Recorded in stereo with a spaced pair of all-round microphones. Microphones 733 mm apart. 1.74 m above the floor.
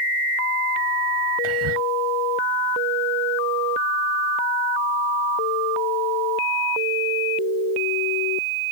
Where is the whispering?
45° right (ahead or behind).